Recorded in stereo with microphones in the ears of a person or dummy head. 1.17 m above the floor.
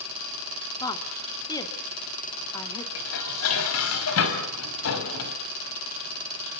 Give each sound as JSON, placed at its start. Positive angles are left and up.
{"t": 0.8, "sound": "a woman speaking", "side_deg": 20, "distance_m": 3.0}
{"t": 3.0, "sound": "dishes clattering", "side_deg": 85, "distance_m": 4.5}